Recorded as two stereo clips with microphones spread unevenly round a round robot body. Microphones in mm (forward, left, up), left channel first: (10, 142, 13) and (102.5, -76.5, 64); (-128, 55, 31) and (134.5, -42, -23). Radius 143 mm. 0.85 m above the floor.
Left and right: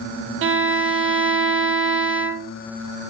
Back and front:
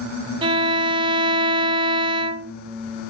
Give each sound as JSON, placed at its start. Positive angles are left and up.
{"t": 0.4, "sound": "a violin", "azimuth_deg": -65, "distance_m": 0.7}